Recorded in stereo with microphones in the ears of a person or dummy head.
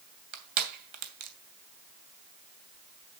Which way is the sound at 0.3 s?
50° right (ahead or behind).